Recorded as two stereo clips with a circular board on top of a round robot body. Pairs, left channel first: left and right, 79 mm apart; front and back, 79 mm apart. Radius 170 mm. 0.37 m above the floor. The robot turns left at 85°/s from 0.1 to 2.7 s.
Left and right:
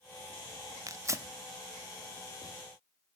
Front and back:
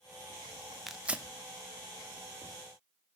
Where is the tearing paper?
90° right, 0.9 m; by 1.3 s 125° right, 0.9 m.